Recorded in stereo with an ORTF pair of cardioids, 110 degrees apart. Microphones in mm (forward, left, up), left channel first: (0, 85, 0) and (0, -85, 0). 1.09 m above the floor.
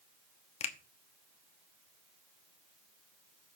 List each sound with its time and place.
0.6 s a finger snap: 40° left, 1.1 m